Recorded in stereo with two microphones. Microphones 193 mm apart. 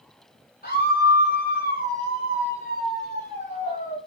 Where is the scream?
50° left (ahead or behind), 8 m; by 4.0 s 40° left (ahead or behind), 10.5 m.